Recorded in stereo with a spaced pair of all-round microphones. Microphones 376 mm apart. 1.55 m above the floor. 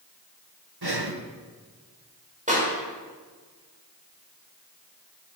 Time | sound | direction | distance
0.8 | breathing | 85° right | 1.5 m
2.5 | a clap | 20° right (ahead or behind) | 6 m